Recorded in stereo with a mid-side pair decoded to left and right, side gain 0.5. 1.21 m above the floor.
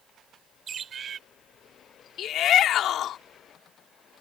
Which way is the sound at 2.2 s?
65° left.